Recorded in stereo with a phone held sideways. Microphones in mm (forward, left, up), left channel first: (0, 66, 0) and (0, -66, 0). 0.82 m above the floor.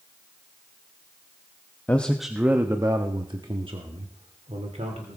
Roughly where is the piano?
No piano in this recording.